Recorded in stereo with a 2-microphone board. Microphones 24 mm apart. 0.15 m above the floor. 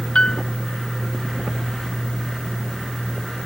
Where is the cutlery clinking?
I don't hear cutlery clinking.